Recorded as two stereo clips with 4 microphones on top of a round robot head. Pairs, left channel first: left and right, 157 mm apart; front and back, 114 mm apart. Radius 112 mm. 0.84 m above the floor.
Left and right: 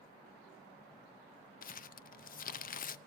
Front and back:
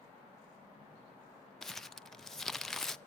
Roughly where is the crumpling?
Left.